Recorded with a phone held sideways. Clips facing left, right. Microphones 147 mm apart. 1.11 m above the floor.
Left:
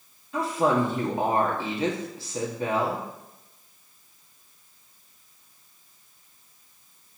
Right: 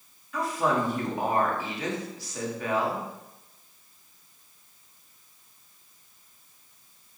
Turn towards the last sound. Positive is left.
turn(degrees=30)  # may be behind; listen again after turning